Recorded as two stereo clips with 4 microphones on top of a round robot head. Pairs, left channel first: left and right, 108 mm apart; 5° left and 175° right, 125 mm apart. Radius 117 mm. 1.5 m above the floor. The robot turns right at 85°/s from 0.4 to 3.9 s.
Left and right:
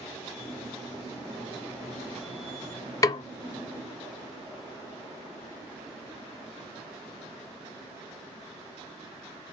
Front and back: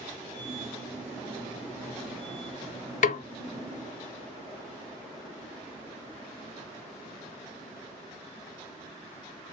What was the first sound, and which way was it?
A snare drum, 30° left.